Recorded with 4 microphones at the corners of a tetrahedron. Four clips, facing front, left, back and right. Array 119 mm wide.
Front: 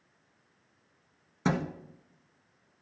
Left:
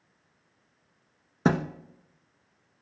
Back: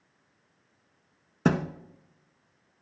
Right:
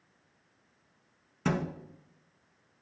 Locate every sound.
1.4 s a thud: 125° left, 0.8 m